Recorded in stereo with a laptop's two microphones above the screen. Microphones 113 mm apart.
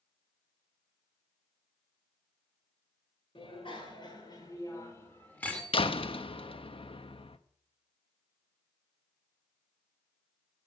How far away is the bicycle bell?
About 2.5 m.